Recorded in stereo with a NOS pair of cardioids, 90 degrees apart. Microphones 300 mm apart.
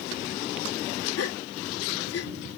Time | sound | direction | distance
1.2 | a gasp | 55° left | ?